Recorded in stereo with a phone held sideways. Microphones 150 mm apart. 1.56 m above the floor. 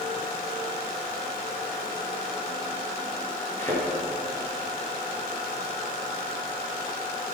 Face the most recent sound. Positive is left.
turn(degrees=15)  # may be behind; listen again after turning